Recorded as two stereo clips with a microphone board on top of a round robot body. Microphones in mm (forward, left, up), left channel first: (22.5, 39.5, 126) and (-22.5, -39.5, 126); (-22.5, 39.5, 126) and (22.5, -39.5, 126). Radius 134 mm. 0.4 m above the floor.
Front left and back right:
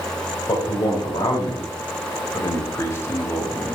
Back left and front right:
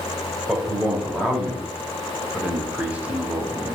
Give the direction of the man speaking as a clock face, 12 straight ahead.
11 o'clock.